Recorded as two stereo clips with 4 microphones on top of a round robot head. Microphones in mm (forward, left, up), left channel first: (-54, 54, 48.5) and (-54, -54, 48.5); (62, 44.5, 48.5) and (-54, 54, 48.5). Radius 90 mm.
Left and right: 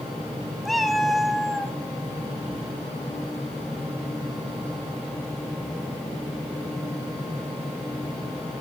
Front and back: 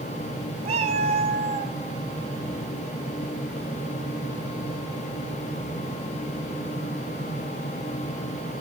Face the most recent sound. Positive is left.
turn(degrees=175)